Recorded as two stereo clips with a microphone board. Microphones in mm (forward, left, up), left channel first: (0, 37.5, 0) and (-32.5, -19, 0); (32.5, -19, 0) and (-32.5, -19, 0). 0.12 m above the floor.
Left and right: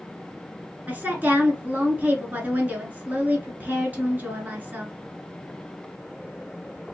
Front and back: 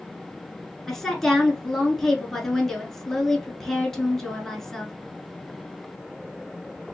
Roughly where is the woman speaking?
Right.